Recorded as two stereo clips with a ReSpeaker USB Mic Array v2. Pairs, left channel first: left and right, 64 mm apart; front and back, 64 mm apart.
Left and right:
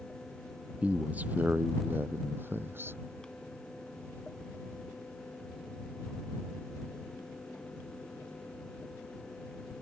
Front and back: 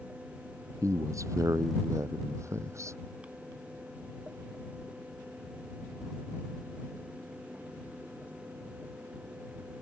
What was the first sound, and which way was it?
A man speaking, 155° right.